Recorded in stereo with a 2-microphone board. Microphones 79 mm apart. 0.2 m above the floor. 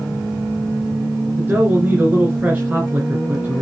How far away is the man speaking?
About 3 m.